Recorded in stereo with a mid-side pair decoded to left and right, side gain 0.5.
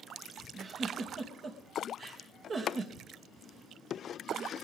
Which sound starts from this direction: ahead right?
A giggle, at 0.5 s.